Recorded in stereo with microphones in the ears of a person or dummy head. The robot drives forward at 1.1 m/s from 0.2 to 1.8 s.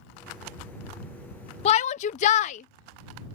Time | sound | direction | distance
1.6 | a shout | 30° left (ahead or behind) | ?